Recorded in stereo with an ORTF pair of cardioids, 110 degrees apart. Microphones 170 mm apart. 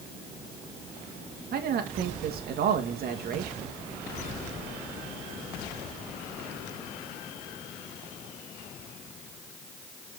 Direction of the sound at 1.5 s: 60° right.